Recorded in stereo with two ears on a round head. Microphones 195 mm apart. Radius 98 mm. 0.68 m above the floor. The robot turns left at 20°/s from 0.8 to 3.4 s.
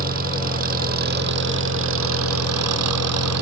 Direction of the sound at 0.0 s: 40° right.